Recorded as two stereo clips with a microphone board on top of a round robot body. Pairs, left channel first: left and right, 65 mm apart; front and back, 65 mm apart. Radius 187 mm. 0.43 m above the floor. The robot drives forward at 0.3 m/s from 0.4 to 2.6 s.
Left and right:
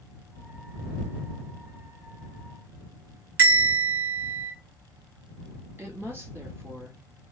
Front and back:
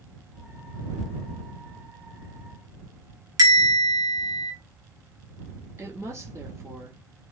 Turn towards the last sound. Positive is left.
turn(degrees=-140)